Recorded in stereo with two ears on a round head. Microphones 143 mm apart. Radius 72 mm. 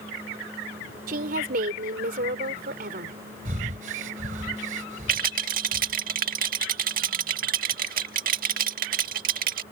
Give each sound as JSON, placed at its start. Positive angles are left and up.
{"t": 1.1, "sound": "a woman speaking", "side_deg": -60}
{"t": 3.5, "sound": "breathing", "side_deg": -55}
{"t": 5.1, "sound": "a rattle", "side_deg": -60}